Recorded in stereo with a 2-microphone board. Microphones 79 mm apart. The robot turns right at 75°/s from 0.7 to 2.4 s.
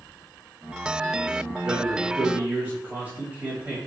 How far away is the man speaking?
About 1.1 m.